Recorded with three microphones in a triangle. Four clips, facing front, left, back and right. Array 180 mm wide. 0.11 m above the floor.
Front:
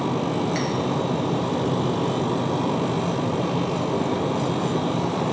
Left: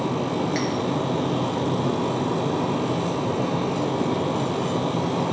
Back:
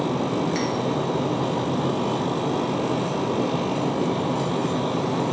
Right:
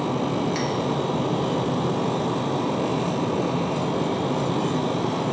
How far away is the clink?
About 1.2 m.